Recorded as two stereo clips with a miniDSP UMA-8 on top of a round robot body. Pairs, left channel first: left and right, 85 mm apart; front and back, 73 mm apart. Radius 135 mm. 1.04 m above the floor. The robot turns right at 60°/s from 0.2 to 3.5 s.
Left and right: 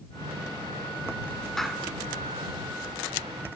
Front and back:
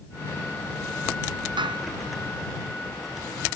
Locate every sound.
1.6 s a clap: 175° left; by 1.9 s 165° right